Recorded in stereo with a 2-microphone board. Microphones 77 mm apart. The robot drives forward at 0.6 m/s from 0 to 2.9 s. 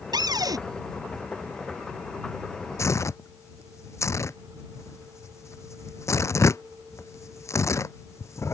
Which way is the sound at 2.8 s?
40° left (ahead or behind).